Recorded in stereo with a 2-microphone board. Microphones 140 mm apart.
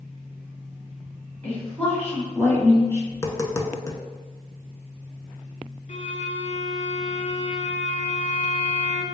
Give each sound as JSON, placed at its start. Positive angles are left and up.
{"t": 1.4, "sound": "a woman speaking", "side_deg": 10, "distance_m": 2.0}
{"t": 3.1, "sound": "tapping", "side_deg": 25, "distance_m": 0.5}
{"t": 5.9, "sound": "a violin", "side_deg": 70, "distance_m": 0.5}